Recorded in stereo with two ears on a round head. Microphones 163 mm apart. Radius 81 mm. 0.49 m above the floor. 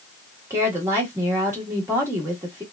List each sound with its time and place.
0.5 s a woman speaking: 15° right (ahead or behind), 1.3 m